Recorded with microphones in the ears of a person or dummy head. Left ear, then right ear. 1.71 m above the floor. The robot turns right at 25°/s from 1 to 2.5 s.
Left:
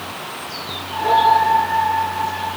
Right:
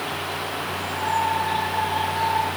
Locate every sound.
Only background noise.